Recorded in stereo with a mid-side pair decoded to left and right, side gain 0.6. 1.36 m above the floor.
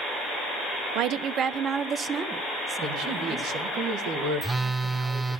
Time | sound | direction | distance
0.9 | a woman speaking | 70° right | 0.5 m
2.8 | a man speaking | 70° right | 1.3 m
4.4 | a phone buzzing | 15° right | 0.9 m